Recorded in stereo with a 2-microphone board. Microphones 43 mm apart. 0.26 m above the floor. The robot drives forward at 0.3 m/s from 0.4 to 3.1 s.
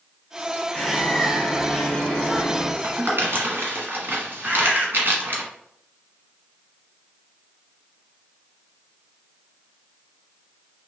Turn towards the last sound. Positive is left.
turn(degrees=-35)  # may be behind; listen again after turning